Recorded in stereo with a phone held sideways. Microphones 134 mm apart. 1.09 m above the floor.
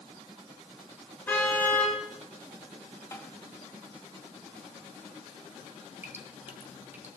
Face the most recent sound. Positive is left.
turn(degrees=-15)  # may be behind; listen again after turning